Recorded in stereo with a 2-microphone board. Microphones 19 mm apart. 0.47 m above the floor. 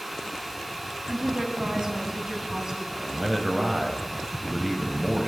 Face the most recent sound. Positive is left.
turn(degrees=0)  # may be behind; listen again after turning